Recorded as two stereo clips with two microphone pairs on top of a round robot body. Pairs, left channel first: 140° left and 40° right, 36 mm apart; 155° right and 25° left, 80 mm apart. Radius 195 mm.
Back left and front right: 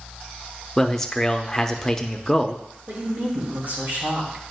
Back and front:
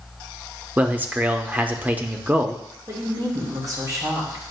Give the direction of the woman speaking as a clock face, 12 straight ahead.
1 o'clock.